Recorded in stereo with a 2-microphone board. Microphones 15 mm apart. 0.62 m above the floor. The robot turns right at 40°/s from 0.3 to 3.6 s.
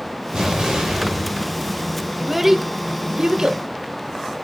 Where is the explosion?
100° right, 2.5 m; by 2.1 s 30° right, 2.5 m.